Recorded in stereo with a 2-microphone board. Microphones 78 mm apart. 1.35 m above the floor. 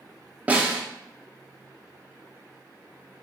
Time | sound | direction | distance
0.5 | a snare drum | 20° right (ahead or behind) | 0.6 m